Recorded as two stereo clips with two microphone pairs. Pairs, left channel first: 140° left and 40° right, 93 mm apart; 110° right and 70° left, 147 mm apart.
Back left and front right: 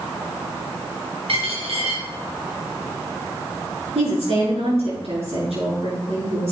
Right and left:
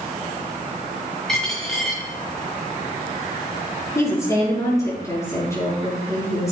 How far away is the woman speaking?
About 6.5 m.